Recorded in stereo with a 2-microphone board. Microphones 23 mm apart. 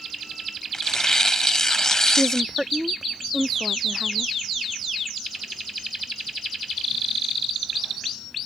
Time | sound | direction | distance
0.7 | tearing paper | 20° left (ahead or behind) | ?
2.2 | a woman speaking | 25° right (ahead or behind) | ?